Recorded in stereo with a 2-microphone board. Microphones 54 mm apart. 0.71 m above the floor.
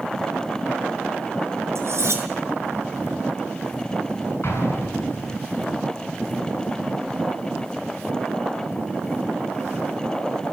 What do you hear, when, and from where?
1.8 s cutlery clinking: 55° right (ahead or behind), 5.5 m
4.4 s an explosion: 55° left (ahead or behind), 8 m